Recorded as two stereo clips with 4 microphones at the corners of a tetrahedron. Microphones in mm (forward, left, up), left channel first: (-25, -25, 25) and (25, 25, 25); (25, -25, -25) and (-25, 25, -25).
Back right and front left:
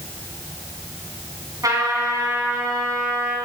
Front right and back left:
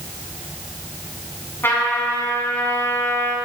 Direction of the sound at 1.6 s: 10° left.